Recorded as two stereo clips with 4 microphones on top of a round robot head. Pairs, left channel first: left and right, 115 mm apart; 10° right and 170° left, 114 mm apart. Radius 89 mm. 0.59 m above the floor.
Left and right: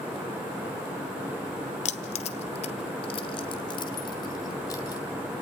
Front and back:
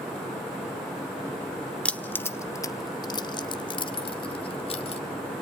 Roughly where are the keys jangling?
Left.